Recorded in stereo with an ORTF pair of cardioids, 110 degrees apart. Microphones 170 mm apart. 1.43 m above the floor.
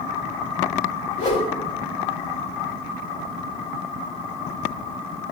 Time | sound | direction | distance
1.2 | a whoosh | 45° left | 3 m